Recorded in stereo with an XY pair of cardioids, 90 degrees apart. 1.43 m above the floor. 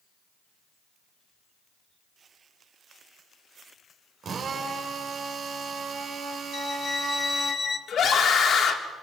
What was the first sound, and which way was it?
A drill, 65° right.